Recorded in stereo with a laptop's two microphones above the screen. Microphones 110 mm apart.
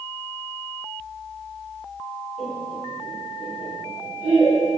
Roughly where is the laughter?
Left.